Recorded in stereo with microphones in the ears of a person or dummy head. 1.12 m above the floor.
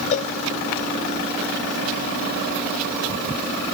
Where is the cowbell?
40° left (ahead or behind).